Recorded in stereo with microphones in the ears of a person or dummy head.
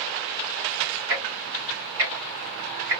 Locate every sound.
1.1 s ticking: 15° right (ahead or behind), 1.1 m